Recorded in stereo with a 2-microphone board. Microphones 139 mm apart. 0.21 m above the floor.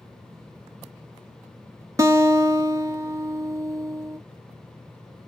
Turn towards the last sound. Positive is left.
turn(degrees=-25)  # may be behind; listen again after turning